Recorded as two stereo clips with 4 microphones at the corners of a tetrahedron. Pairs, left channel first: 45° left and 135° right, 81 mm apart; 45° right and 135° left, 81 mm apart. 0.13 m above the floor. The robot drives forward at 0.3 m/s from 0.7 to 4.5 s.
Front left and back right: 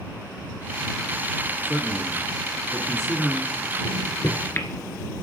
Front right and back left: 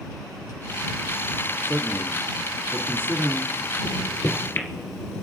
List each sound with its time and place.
1.6 s a man speaking: 95° left, 1.2 m; by 3.5 s 140° left, 1.3 m
3.9 s a microwave: 10° left, 1.8 m